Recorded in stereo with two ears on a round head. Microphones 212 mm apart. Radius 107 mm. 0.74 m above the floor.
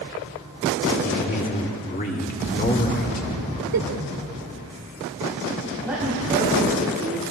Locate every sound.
1.0 s a man speaking: 30° left (ahead or behind), 2.0 m
3.7 s a giggle: 70° right (ahead or behind), 1.1 m
5.8 s a woman speaking: 5° right (ahead or behind), 5 m